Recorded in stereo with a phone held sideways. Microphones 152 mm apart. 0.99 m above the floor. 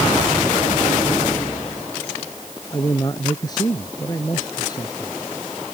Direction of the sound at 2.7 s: 25° left (ahead or behind).